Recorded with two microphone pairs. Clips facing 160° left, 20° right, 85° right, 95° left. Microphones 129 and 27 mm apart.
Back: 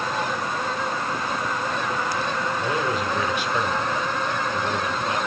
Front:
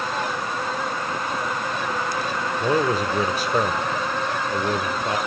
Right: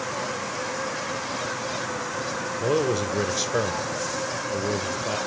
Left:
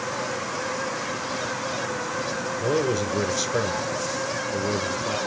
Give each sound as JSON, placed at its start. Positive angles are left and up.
{"t": 2.6, "sound": "a man speaking", "azimuth_deg": -15, "distance_m": 1.1}